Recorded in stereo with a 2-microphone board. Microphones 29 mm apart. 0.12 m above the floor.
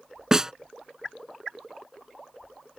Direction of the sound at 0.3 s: 20° right (ahead or behind).